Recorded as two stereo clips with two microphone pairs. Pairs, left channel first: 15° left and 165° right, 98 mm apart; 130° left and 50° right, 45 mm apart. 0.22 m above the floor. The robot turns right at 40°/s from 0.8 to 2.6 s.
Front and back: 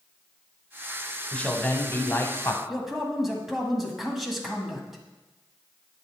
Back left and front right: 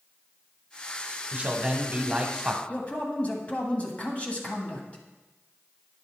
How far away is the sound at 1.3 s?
About 1.0 m.